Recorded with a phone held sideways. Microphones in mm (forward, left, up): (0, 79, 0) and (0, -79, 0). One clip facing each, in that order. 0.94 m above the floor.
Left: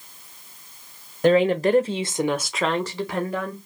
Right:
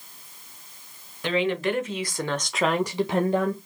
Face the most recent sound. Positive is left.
turn(degrees=-30)  # may be behind; listen again after turning